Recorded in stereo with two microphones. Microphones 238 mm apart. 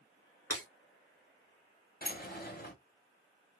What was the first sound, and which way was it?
Breaking glass, 80° left.